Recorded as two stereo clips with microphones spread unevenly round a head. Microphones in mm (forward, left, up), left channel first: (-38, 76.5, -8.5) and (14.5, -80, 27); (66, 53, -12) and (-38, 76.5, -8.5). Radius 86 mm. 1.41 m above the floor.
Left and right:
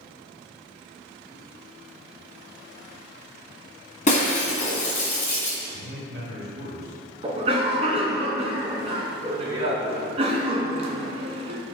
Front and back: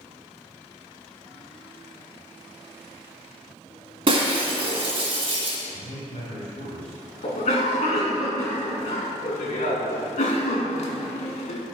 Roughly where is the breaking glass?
Behind left.